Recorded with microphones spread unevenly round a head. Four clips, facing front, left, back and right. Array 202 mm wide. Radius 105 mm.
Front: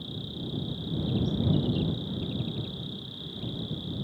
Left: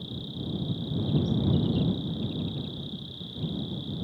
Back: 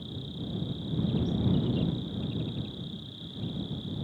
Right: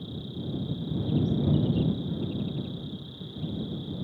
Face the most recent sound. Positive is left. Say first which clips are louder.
# even, front 1 dB
turn(degrees=-30)